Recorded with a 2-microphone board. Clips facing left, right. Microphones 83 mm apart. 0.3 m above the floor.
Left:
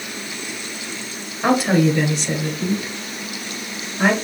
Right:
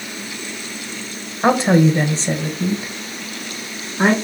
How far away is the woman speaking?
About 0.9 m.